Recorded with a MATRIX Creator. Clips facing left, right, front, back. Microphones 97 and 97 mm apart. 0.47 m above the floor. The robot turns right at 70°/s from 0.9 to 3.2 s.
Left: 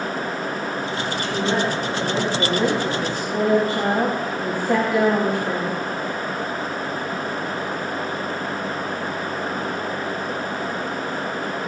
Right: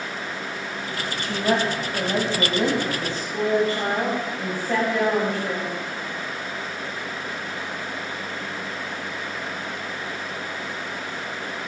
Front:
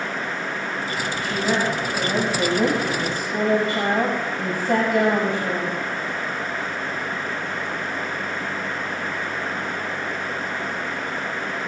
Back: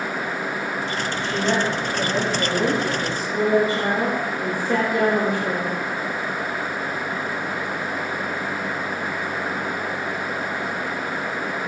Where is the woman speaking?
115° right, 2.5 m; by 5.7 s 20° left, 2.5 m.